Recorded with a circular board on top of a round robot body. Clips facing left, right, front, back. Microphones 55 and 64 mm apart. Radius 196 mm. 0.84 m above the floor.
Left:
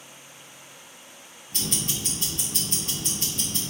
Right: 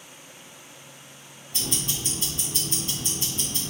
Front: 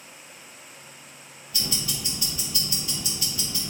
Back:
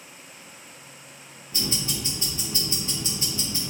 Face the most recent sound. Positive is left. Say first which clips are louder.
# even, back 2 dB
turn(degrees=120)